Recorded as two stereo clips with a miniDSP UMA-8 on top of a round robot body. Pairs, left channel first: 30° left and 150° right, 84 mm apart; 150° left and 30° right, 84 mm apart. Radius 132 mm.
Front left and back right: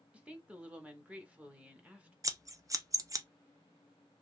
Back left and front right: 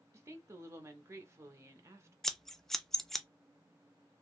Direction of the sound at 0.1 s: 80° right.